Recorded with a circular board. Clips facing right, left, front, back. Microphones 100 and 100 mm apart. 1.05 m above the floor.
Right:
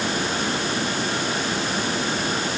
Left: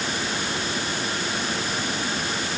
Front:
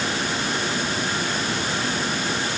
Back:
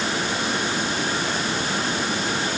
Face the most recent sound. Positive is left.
No sound to turn to.